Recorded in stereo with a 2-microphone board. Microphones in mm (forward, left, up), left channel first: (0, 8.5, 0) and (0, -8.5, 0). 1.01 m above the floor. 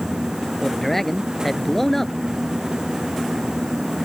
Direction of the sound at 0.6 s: 15° left (ahead or behind).